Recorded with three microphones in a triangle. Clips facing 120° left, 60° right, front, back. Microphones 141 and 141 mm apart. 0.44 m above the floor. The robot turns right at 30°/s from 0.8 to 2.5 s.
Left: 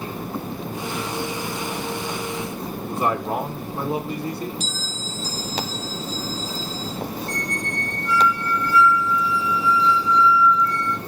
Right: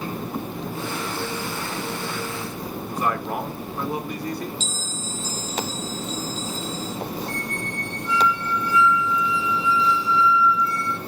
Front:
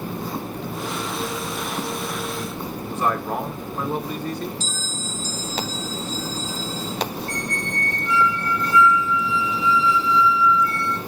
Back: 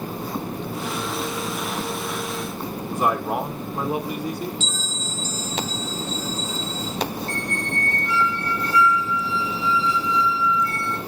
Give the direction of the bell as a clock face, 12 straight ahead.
4 o'clock.